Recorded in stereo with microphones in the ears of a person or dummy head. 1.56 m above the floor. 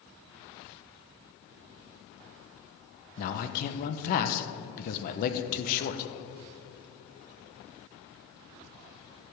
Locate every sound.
3.2 s a man speaking: 55° left (ahead or behind), 0.9 m